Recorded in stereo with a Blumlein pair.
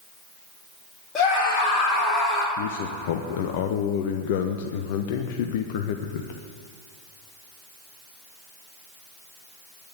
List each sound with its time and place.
1.1 s a scream: 25° left, 3 m; by 2.5 s 10° left, 4 m
2.6 s a man speaking: 50° left, 0.9 m